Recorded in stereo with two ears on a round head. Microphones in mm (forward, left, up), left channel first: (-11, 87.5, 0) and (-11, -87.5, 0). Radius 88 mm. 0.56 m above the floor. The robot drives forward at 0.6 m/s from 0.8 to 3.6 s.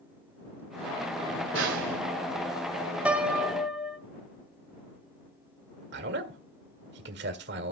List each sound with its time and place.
1.5 s a snare drum: 70° right (ahead or behind), 2 m; by 2.0 s 65° right (ahead or behind), 2 m
3.0 s a piano: 5° right (ahead or behind), 0.7 m
5.9 s a man speaking: 60° right (ahead or behind), 1.6 m